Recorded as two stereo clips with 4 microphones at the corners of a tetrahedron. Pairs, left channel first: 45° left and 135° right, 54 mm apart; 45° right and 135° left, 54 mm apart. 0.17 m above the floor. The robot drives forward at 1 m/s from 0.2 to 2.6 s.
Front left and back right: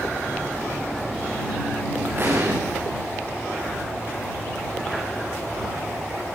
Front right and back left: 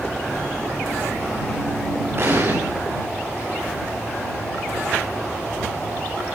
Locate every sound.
2.2 s an explosion: 175° left, 7 m